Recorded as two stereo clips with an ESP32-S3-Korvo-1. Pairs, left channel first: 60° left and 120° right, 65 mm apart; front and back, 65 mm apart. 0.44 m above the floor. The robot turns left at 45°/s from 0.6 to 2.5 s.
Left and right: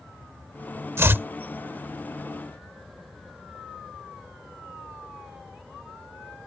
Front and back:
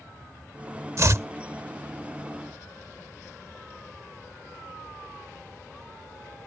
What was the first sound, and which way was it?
Chopping, 155° right.